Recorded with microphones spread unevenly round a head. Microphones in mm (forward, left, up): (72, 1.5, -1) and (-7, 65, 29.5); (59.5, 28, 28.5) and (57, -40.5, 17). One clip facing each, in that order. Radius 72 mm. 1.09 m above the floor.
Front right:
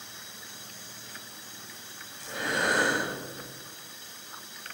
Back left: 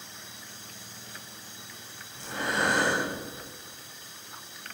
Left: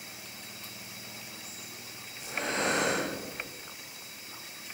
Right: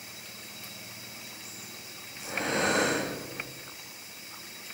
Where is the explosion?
I don't hear an explosion.